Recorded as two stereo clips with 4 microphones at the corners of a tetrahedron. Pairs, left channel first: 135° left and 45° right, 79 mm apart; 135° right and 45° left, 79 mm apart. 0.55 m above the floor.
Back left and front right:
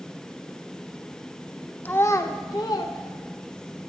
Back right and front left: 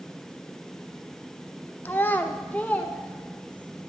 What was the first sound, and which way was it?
A child speaking, straight behind.